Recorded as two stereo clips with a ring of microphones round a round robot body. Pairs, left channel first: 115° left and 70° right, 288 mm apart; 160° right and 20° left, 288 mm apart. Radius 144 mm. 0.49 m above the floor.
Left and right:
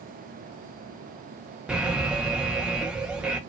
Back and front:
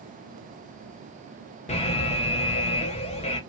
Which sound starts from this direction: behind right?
An alarm, at 1.7 s.